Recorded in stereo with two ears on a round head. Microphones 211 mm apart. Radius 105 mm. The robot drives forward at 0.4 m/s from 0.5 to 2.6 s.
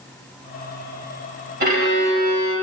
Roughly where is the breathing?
No breathing in this recording.